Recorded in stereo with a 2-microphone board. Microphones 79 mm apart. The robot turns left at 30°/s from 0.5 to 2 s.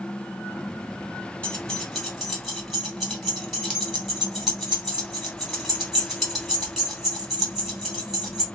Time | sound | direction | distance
1.4 | keys jangling | 15° left (ahead or behind) | 1.7 m